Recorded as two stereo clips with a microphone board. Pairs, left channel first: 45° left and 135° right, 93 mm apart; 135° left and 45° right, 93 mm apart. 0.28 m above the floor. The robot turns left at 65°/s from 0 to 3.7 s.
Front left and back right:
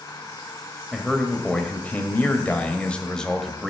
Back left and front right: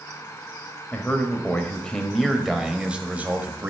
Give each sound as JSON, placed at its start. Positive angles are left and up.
{"t": 0.9, "sound": "a man speaking", "azimuth_deg": 135, "distance_m": 1.2}